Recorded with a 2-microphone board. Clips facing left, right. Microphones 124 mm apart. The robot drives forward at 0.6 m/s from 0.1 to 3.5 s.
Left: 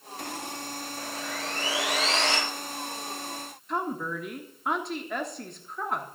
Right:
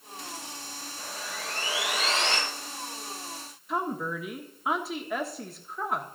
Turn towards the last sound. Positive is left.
turn(degrees=-5)  # may be behind; listen again after turning